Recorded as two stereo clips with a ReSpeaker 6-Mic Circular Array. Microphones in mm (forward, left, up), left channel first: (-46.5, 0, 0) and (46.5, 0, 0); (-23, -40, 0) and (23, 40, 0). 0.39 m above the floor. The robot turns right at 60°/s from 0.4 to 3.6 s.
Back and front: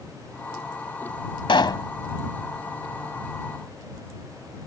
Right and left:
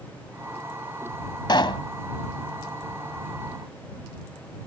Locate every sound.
1.5 s a pop: 155° right; by 1.9 s 135° right